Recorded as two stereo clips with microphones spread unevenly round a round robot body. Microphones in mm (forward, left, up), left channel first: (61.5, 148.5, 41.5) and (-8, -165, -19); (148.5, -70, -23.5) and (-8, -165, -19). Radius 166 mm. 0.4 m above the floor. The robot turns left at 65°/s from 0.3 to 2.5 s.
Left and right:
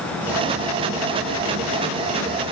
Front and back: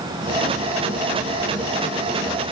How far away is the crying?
No crying in this recording.